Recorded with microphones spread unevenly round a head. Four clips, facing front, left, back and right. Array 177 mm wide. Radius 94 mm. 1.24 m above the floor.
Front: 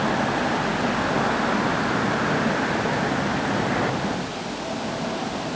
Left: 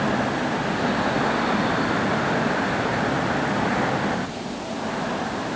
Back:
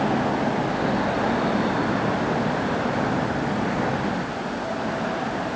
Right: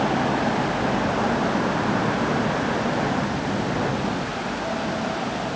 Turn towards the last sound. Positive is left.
No sound to turn to.